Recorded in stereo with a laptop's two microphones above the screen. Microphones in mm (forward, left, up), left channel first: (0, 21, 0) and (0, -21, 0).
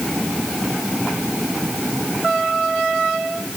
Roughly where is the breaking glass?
I don't hear breaking glass.